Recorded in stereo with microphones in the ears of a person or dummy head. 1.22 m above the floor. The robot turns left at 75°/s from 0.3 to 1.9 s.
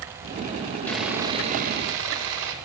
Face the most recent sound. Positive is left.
turn(degrees=-75)